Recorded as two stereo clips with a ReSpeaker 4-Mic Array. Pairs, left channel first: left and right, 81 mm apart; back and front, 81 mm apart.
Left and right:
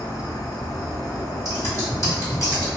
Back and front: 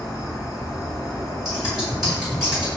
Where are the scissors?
85° left, 1.8 m.